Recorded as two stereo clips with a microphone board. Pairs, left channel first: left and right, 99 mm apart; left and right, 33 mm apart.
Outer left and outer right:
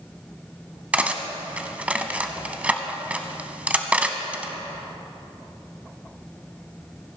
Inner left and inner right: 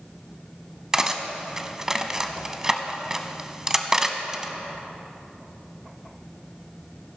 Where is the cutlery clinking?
15° right (ahead or behind), 0.7 m.